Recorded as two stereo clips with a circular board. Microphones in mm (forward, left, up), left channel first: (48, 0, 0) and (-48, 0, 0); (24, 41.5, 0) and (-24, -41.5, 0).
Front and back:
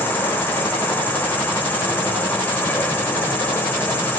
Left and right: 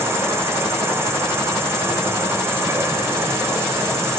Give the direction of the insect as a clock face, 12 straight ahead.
2 o'clock.